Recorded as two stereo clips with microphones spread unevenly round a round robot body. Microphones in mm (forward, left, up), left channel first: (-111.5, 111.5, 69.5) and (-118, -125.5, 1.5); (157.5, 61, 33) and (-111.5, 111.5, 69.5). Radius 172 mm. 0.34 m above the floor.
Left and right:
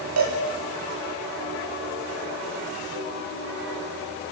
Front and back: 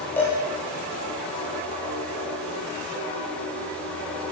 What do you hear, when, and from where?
0.2 s a cowbell: 95° right, 8 m